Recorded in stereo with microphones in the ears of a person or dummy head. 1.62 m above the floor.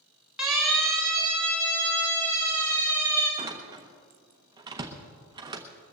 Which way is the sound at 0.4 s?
5° right (ahead or behind).